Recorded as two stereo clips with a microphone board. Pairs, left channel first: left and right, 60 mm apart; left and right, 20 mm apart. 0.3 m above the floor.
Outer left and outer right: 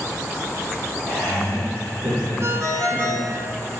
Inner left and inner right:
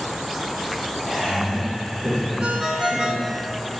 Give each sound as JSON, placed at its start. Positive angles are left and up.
{"t": 1.1, "sound": "laughter", "side_deg": -65, "distance_m": 4.0}
{"t": 2.4, "sound": "a ringtone", "side_deg": -45, "distance_m": 1.6}